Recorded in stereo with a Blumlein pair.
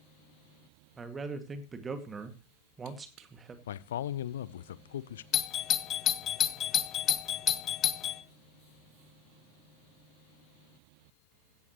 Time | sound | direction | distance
1.0 | a man speaking | 20° right | 2 m
3.7 | a man speaking | 60° left | 0.7 m
5.3 | a doorbell | 30° left | 1.0 m